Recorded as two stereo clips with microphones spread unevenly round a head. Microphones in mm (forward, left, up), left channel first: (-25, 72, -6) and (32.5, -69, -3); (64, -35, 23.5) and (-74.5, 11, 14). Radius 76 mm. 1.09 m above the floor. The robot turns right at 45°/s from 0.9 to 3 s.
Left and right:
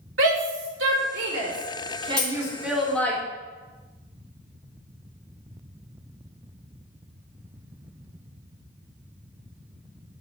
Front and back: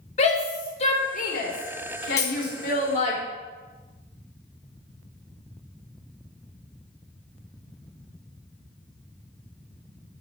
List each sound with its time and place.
0.2 s a shout: 65° right, 4 m; by 3.2 s 30° left, 4 m
2.2 s a dropped coin: 30° left, 4 m; by 2.6 s 45° left, 4 m